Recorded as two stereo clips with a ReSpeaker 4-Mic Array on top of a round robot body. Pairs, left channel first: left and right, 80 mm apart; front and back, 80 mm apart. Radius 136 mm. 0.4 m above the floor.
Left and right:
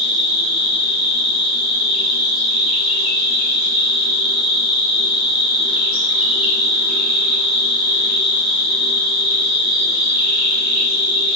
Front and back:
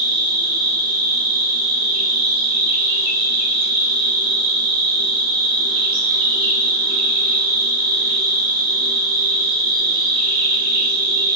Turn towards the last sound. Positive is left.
turn(degrees=-175)